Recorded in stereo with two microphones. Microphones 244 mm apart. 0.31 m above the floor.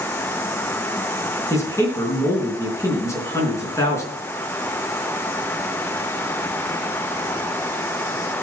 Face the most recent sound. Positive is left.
turn(degrees=15)  # may be behind; listen again after turning